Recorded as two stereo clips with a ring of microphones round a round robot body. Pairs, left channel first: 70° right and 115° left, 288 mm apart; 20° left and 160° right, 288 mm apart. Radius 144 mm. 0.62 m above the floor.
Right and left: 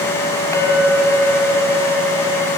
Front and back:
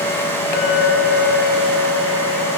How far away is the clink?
About 2.5 m.